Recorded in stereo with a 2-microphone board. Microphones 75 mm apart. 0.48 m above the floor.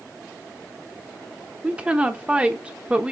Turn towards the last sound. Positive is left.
turn(degrees=-15)  # may be behind; listen again after turning